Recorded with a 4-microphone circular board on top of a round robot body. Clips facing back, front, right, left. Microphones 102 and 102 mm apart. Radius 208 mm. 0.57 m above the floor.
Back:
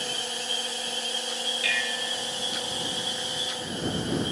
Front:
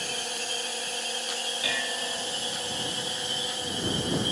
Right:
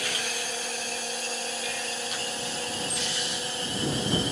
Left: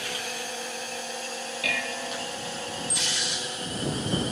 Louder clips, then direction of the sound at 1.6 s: Even, left 2 dB; 65° left.